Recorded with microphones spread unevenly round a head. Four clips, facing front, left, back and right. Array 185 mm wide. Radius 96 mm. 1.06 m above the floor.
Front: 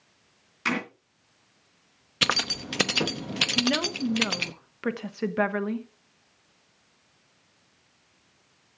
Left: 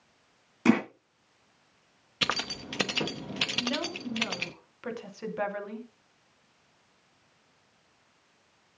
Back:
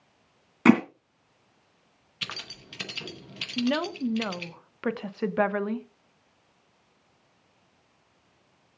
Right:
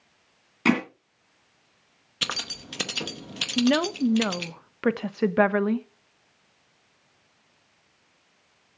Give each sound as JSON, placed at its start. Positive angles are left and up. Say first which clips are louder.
{"t": 0.7, "sound": "hammering", "louder": "even, back 11 dB", "azimuth_deg": -175, "distance_m": 2.0}
{"t": 2.2, "sound": "keys jangling", "louder": "left 3 dB, front 14 dB", "azimuth_deg": 10, "distance_m": 1.0}
{"t": 3.6, "sound": "a woman speaking", "louder": "right 14 dB, back 1 dB", "azimuth_deg": -85, "distance_m": 1.1}